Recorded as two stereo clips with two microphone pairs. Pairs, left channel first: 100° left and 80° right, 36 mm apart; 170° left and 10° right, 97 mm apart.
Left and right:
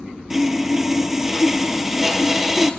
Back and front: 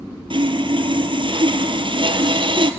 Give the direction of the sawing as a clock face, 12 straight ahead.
12 o'clock.